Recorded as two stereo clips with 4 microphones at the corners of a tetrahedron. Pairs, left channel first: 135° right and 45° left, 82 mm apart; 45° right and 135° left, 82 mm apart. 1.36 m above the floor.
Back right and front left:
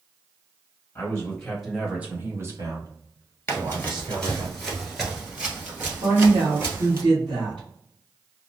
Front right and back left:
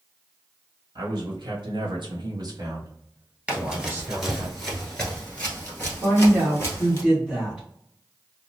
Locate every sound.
0.9 s a man speaking: 160° left, 0.9 m; by 4.5 s 60° left, 1.6 m
3.5 s running footsteps: 160° right, 1.4 m; by 7.0 s 5° left, 1.9 m
6.0 s a woman speaking: 60° left, 1.3 m